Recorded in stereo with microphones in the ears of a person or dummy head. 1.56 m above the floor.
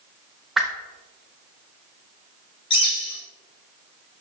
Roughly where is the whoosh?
Centre.